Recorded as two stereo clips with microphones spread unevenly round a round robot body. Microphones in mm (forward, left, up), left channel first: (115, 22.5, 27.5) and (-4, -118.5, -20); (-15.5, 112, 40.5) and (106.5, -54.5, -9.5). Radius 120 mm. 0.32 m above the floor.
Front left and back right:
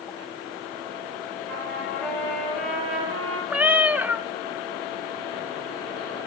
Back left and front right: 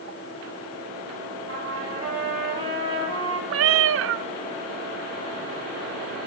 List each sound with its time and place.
1.5 s a trumpet: 35° right, 6 m
3.5 s a cat meowing: 50° right, 0.5 m